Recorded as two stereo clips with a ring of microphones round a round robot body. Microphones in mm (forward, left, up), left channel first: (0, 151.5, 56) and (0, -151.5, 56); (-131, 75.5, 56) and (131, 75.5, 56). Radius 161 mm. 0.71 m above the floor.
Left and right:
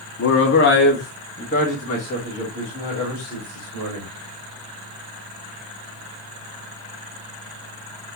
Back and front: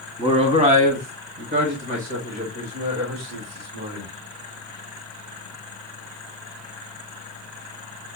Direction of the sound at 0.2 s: 65° left.